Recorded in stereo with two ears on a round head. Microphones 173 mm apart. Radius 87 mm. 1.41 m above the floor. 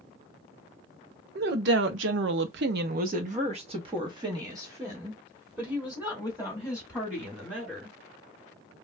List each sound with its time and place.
1.4 s a woman speaking: 55° right (ahead or behind), 0.9 m; by 8.0 s 5° right (ahead or behind), 3 m